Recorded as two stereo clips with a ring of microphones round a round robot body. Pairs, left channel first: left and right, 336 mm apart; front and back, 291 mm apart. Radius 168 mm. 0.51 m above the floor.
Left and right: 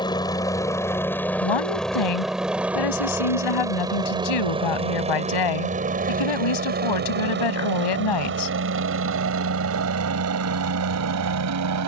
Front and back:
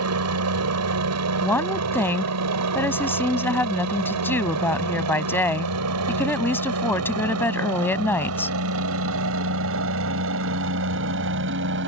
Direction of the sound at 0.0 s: 165° left.